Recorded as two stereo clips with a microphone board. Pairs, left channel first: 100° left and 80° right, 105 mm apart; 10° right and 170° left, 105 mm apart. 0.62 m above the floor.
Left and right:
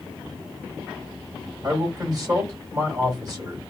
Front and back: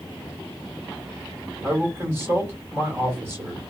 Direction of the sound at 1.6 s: 130° right.